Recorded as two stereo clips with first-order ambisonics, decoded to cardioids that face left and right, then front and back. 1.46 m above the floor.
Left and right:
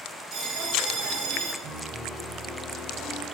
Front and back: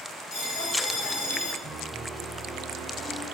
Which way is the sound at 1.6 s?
95° right.